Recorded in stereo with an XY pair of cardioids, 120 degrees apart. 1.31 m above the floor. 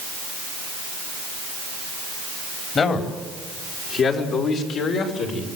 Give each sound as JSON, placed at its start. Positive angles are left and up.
{"t": 2.8, "sound": "a man speaking", "azimuth_deg": 40, "distance_m": 4.0}